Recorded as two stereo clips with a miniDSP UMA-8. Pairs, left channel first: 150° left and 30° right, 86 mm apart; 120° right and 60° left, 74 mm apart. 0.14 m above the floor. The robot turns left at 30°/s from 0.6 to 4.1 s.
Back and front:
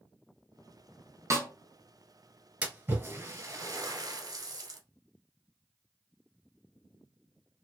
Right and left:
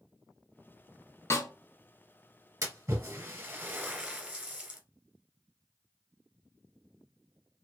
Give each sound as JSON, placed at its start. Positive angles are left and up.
{"t": 1.3, "sound": "a snare drum", "azimuth_deg": -75, "distance_m": 0.8}
{"t": 2.6, "sound": "a splash", "azimuth_deg": 35, "distance_m": 0.9}